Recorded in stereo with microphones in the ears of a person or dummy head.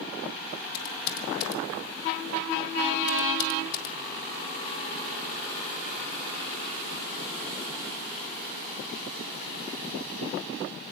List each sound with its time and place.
0.7 s typing on a keyboard: 65° left (ahead or behind), 1.5 m